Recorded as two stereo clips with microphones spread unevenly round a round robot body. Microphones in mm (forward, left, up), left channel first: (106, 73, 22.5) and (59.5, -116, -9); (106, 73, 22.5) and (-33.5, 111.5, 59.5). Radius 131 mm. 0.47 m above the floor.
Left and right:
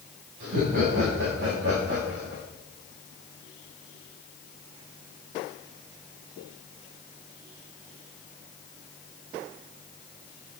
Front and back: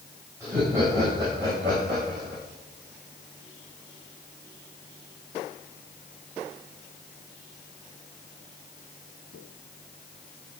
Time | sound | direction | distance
0.4 | laughter | 115° right | 4 m